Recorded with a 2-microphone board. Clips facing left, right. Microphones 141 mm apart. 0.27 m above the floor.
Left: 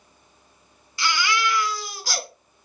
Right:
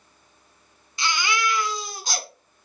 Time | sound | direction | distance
1.0 | a baby crying | 20° right (ahead or behind) | 1.2 m